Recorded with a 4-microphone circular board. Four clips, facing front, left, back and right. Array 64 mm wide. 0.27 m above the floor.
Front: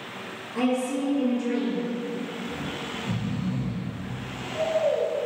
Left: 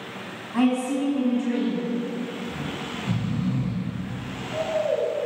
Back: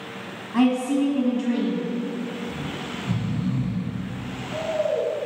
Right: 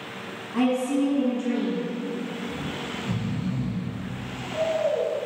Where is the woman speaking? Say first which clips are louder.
Left 1 dB, back 5 dB; 165° left, 1.5 m.